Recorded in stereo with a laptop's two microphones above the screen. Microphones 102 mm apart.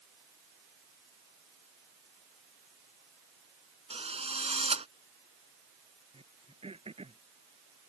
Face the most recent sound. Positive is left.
turn(degrees=-70)  # may be behind; listen again after turning